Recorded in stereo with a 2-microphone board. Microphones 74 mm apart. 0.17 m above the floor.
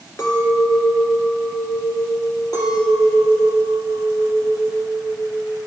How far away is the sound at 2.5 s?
About 3.5 m.